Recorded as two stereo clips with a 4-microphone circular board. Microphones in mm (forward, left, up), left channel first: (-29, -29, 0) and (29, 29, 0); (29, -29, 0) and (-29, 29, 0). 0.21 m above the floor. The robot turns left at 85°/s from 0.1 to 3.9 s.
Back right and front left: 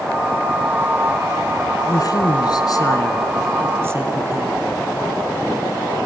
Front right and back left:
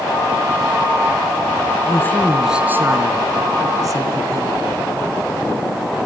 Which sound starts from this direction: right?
A woman speaking, at 1.9 s.